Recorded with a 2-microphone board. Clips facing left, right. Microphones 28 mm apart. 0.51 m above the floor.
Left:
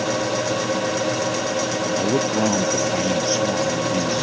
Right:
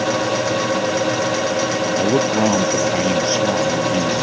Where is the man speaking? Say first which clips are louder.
Right 4 dB; 25° right (ahead or behind).